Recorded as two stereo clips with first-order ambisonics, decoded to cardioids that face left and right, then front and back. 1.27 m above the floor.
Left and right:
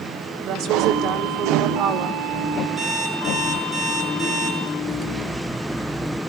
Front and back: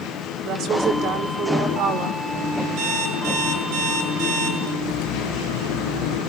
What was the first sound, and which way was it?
A woman speaking, 140° right.